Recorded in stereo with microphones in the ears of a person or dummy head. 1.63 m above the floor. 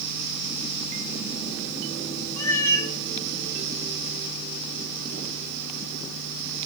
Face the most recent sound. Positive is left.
turn(degrees=15)  # may be behind; listen again after turning